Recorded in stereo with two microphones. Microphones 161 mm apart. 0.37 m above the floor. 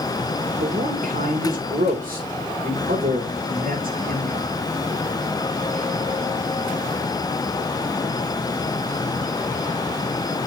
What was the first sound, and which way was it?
A man speaking, 70° right (ahead or behind).